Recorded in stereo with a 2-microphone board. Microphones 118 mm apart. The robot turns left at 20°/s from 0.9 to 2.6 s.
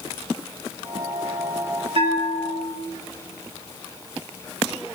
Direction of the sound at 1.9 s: 50° right (ahead or behind).